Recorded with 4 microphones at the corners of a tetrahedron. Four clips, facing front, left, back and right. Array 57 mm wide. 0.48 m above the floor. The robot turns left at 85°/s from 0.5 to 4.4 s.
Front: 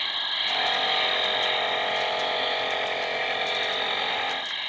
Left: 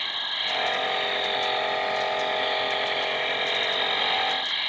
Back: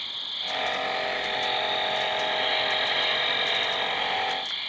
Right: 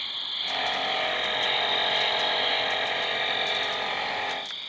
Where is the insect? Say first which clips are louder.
Left 3 dB, front 5 dB; 40° left; by 4.7 s 65° left.